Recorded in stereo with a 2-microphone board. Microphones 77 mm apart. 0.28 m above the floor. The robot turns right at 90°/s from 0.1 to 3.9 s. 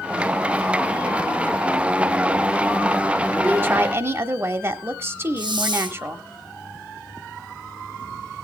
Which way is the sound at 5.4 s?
90° right.